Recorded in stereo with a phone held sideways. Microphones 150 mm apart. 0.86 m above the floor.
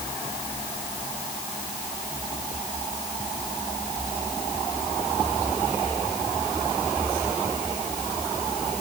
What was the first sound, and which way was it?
Only background noise.